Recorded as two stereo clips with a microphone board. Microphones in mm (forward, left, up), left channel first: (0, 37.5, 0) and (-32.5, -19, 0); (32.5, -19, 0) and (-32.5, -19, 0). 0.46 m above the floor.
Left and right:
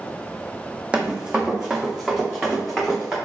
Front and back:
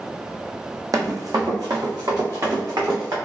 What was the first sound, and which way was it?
Running footsteps, 165° left.